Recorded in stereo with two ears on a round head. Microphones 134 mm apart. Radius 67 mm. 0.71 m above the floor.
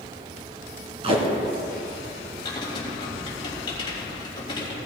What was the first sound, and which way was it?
Tape being pulled, 40° right (ahead or behind).